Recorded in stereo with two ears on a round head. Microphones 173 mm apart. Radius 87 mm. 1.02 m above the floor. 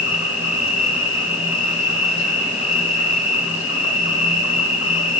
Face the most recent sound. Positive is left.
turn(degrees=65)  # may be behind; listen again after turning